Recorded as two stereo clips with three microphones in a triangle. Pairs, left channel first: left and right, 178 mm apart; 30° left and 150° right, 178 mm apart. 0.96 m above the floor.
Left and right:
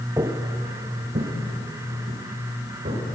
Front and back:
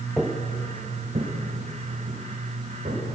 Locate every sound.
0.2 s footsteps: 55° right, 1.0 m; by 3.0 s 115° right, 5 m